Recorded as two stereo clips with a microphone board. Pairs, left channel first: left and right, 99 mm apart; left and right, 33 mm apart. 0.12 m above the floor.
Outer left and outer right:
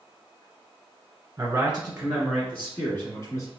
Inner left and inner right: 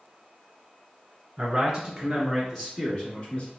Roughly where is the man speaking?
Right.